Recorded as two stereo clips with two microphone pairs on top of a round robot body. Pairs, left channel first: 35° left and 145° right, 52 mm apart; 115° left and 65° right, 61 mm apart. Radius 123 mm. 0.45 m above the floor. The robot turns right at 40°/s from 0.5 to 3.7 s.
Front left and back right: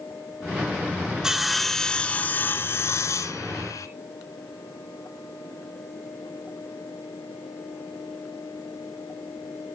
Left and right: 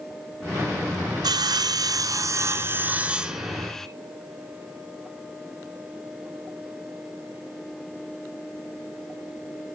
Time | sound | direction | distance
1.2 | sawing | 65° right | 1.4 m